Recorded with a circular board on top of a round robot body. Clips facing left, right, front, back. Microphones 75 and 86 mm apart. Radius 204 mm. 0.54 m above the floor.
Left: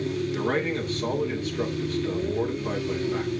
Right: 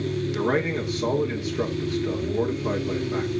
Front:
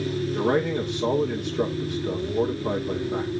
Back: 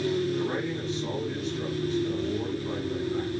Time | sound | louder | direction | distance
0.3 | a man speaking | right 4 dB, front 6 dB | 10° right | 2 m